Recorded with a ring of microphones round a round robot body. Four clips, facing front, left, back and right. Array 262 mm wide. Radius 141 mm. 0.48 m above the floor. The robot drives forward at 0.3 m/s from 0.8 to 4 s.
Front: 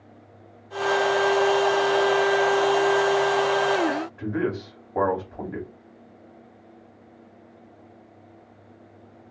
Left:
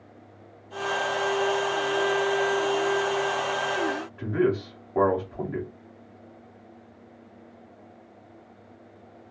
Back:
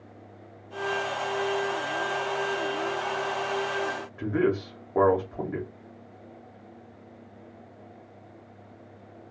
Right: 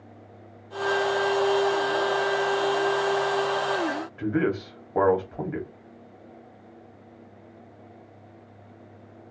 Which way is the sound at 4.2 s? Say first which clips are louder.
Left 1 dB, back 1 dB; 110° right.